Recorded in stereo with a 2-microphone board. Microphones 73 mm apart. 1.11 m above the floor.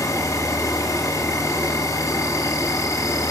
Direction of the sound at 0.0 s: 50° left (ahead or behind).